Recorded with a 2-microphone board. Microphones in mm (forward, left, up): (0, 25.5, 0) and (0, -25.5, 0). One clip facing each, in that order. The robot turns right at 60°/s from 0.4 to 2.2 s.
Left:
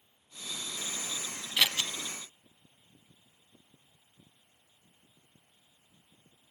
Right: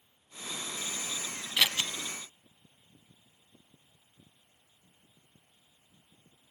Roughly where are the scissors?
Centre.